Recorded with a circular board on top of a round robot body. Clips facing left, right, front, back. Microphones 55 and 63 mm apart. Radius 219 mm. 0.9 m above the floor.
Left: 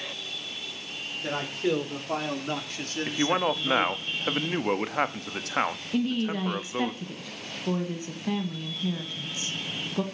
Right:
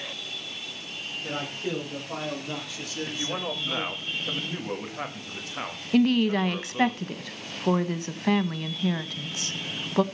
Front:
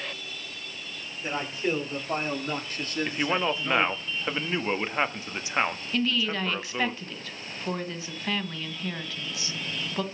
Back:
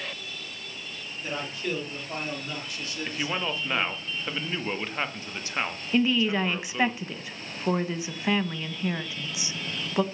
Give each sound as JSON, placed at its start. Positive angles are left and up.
{"t": 1.2, "sound": "a man speaking", "azimuth_deg": 65, "distance_m": 5.0}
{"t": 3.1, "sound": "a man speaking", "azimuth_deg": 70, "distance_m": 1.6}
{"t": 5.9, "sound": "a woman speaking", "azimuth_deg": -110, "distance_m": 1.9}